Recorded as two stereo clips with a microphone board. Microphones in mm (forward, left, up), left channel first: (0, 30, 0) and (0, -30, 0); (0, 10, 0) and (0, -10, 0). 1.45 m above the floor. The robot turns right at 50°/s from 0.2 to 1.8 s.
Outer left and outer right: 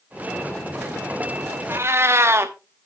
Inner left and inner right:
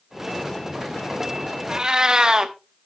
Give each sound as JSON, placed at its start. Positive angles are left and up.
{"t": 1.7, "sound": "a cat meowing", "side_deg": -40, "distance_m": 1.1}